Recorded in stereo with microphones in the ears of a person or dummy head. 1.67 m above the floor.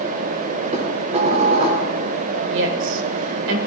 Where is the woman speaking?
80° right, 1.8 m.